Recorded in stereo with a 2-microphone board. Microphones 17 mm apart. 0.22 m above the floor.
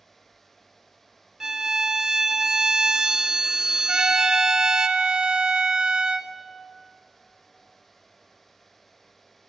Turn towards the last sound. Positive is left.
turn(degrees=-55)  # may be behind; listen again after turning